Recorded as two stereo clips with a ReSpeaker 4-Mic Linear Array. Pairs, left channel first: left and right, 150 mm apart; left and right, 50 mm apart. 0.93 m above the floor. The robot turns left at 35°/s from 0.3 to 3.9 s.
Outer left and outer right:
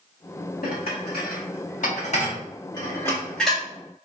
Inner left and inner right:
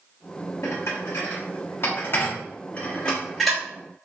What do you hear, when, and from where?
0.6 s dishes clattering: 75° left (ahead or behind), 1.2 m; by 3.6 s centre (ahead or behind), 1.2 m